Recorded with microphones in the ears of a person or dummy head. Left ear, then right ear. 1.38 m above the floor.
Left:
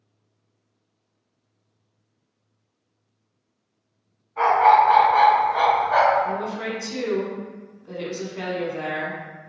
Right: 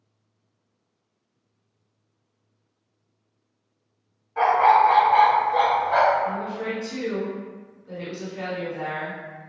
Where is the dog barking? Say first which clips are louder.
Left 1 dB; 30° right (ahead or behind), 0.9 m; by 6.2 s 5° left (ahead or behind), 1.3 m.